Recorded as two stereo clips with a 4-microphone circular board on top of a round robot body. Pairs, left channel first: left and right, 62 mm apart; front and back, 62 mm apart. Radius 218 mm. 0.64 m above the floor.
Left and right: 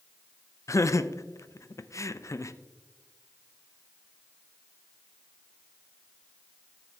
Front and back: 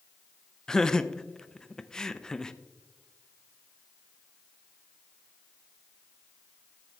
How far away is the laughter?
About 0.7 m.